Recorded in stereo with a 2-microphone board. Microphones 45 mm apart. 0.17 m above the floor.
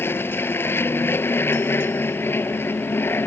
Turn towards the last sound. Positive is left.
turn(degrees=55)  # may be behind; listen again after turning